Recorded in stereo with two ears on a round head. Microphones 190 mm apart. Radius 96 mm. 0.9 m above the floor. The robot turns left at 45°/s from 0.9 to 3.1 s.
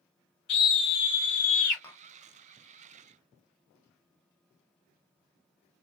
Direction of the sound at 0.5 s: 115° left.